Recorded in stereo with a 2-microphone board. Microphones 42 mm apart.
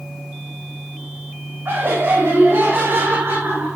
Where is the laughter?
70° right (ahead or behind), 7.5 m.